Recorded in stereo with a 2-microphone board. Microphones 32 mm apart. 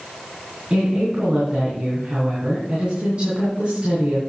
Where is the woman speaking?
35° right (ahead or behind), 3.5 m.